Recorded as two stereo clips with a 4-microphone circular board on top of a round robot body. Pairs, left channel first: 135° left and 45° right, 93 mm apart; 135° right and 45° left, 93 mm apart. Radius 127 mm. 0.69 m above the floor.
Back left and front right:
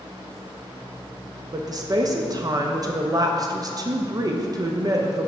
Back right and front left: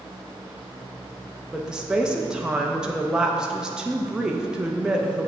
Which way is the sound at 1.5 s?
35° right.